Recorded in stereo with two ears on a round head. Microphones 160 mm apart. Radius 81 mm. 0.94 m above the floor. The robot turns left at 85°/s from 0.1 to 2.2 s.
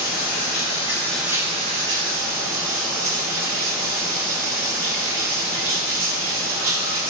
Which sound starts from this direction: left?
Running water, at 0.0 s.